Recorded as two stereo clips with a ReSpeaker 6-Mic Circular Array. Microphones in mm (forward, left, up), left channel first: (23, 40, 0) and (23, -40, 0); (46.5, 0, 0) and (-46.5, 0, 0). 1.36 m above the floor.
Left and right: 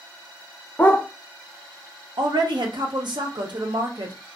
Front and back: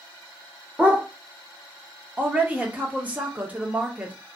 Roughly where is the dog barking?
Behind left.